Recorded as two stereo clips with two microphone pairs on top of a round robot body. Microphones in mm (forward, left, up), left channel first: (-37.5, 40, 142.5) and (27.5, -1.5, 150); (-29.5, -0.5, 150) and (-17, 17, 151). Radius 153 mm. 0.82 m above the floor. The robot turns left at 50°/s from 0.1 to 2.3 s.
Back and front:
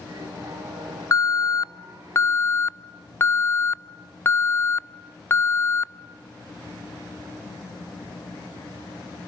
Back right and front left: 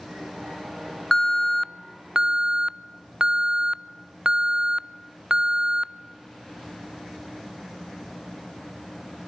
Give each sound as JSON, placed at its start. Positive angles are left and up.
{"t": 1.1, "sound": "an alarm", "azimuth_deg": 165, "distance_m": 0.8}